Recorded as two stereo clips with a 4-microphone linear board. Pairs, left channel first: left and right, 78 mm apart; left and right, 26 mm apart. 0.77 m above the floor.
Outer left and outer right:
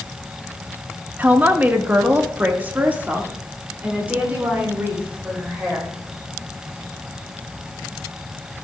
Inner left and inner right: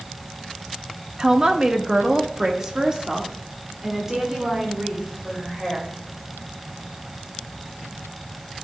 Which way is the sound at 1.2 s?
25° right (ahead or behind).